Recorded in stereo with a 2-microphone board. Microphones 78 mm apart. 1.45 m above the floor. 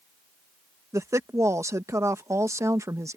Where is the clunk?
I don't hear a clunk.